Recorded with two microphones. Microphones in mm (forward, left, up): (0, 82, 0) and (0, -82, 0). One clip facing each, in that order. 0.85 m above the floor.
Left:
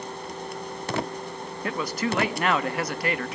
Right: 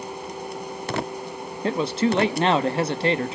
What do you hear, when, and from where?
1.6 s a man speaking: 25° right (ahead or behind), 1.0 m